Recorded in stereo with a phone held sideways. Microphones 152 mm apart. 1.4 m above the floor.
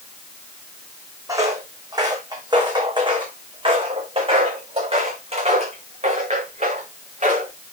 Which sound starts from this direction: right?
Footsteps, at 1.3 s.